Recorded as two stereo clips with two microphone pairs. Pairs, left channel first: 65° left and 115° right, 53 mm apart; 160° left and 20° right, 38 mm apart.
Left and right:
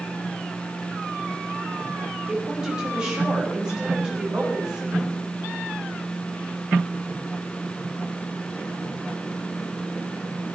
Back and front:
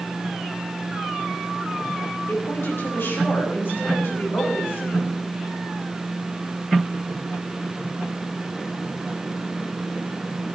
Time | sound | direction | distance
2.3 | a woman speaking | 170° left | 6 m